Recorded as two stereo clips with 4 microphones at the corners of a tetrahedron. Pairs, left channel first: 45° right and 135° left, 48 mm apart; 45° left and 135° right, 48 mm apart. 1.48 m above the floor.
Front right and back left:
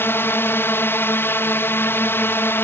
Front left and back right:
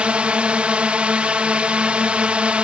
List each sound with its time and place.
0.0 s a drone: 75° right